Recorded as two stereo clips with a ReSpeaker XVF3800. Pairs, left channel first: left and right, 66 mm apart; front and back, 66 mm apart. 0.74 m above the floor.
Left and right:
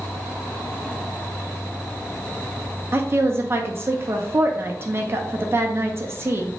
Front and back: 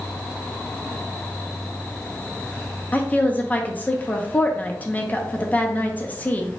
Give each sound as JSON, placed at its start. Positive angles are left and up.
{"t": 2.9, "sound": "a woman speaking", "azimuth_deg": -55, "distance_m": 0.5}